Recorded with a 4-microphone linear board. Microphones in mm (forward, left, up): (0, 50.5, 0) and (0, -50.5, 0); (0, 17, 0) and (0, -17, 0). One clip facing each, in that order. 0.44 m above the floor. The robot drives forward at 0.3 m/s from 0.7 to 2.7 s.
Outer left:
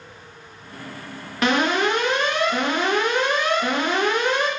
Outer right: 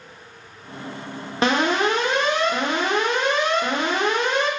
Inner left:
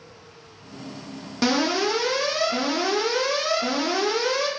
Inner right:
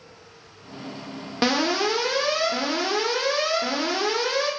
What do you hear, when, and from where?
1.4 s an alarm: 30° right (ahead or behind), 0.6 m; by 4.5 s 25° right (ahead or behind), 0.7 m